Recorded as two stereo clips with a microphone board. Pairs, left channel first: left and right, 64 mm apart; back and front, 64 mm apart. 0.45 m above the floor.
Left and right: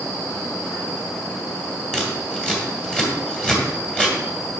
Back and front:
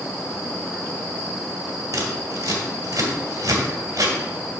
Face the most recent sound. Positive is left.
turn(degrees=15)